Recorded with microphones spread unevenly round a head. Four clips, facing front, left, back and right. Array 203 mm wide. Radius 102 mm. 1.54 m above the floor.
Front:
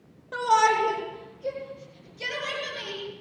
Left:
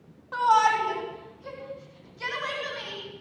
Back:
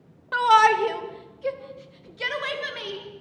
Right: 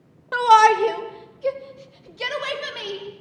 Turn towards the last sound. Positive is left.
turn(degrees=-120)